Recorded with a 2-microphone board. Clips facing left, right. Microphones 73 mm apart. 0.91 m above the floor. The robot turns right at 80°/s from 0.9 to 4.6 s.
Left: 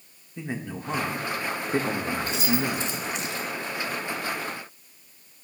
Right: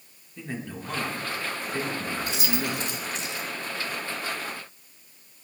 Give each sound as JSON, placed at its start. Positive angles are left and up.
{"t": 0.4, "sound": "a man speaking", "azimuth_deg": 25, "distance_m": 1.1}
{"t": 2.3, "sound": "keys jangling", "side_deg": -75, "distance_m": 1.3}